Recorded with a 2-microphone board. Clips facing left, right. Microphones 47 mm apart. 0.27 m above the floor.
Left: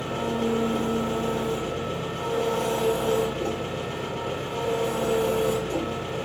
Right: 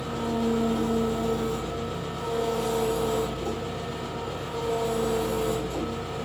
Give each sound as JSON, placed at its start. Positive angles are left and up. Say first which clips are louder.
{"t": 0.0, "sound": "an engine running", "louder": "left 1 dB", "side_deg": 75, "distance_m": 7.0}